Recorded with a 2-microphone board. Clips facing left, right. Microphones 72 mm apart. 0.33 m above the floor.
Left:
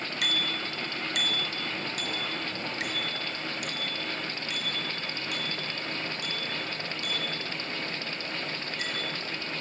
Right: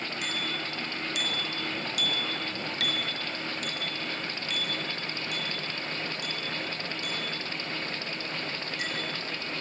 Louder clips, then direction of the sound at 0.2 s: Left 3 dB; 70° left (ahead or behind).